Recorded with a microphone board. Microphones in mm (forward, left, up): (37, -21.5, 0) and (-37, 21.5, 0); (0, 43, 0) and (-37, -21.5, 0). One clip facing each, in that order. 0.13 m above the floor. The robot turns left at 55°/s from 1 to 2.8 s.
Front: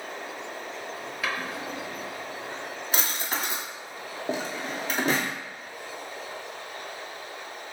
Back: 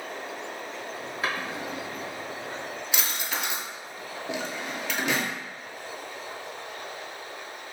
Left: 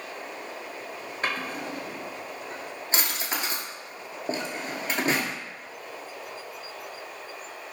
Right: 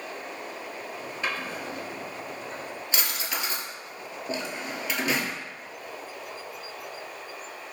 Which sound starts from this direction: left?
A drawer, at 1.2 s.